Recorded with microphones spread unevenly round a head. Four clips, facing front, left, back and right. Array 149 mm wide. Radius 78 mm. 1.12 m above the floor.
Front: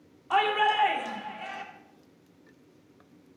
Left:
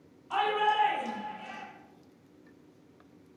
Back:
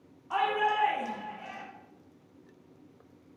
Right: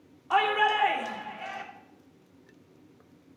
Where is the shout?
50° right, 3 m.